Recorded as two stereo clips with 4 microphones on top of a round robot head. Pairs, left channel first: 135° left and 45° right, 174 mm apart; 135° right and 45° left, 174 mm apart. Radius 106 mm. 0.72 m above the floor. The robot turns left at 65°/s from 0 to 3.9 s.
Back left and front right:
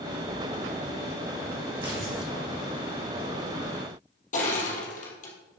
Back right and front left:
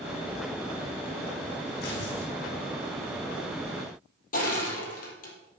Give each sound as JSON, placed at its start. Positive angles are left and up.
{"t": 1.8, "sound": "tearing paper", "azimuth_deg": -105, "distance_m": 4.0}
{"t": 4.3, "sound": "crushing", "azimuth_deg": -175, "distance_m": 3.5}